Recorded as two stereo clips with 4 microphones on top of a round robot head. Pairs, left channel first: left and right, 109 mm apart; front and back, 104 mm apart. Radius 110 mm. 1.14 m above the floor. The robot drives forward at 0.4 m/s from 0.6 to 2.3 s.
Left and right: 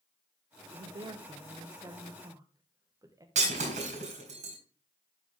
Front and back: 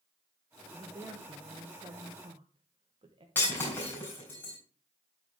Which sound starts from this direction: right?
Breaking glass, at 3.4 s.